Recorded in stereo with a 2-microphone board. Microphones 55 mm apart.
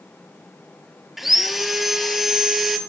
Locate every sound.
1.2 s sawing: 5° right (ahead or behind), 0.5 m